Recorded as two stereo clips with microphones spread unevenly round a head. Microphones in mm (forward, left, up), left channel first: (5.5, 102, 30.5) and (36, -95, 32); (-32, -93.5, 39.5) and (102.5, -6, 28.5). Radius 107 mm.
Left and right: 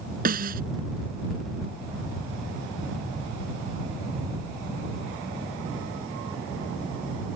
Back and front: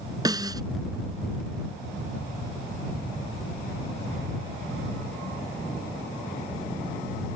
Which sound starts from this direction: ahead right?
A snare drum, at 0.2 s.